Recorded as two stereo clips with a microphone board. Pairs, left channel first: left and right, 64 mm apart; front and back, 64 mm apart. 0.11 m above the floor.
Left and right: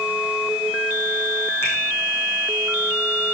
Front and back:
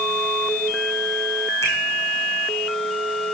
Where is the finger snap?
40° left, 6 m.